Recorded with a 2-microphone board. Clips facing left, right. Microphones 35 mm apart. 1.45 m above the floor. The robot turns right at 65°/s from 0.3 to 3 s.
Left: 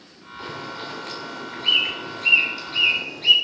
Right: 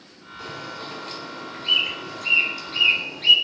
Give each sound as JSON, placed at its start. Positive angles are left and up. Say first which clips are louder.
{"t": 0.4, "sound": "a bird", "louder": "left 2 dB", "side_deg": 30, "distance_m": 3.5}